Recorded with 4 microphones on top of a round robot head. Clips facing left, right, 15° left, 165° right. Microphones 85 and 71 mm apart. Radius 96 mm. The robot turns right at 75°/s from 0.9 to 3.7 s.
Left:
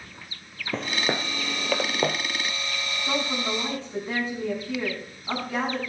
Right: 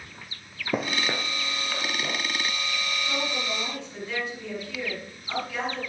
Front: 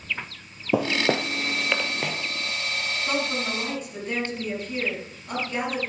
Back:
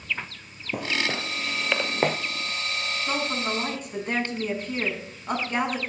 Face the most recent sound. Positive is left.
turn(degrees=145)